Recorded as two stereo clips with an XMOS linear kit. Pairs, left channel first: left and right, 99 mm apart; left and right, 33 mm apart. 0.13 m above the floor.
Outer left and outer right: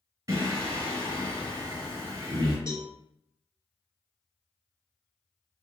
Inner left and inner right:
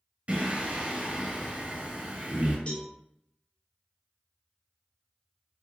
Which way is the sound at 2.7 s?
30° left (ahead or behind).